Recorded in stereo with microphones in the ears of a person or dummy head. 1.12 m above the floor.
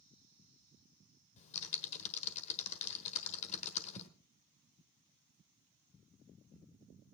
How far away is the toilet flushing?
No toilet flushing in this recording.